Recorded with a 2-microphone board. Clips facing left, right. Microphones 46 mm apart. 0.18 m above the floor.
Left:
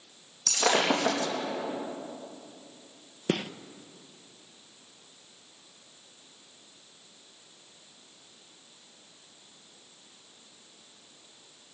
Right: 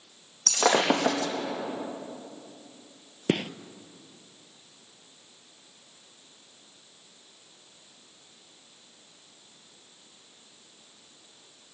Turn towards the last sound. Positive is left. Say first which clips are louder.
# right 3 dB
turn(degrees=-20)  # may be behind; listen again after turning